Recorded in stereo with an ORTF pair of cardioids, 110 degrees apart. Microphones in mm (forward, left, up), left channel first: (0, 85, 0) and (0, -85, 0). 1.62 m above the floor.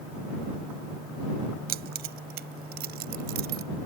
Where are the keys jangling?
70° right; by 3.6 s 75° right.